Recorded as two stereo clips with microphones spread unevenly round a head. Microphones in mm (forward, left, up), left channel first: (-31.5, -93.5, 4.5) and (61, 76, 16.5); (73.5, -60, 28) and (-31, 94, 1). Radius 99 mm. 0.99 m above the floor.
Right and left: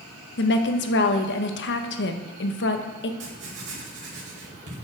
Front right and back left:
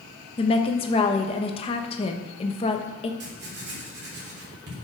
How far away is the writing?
About 3.5 m.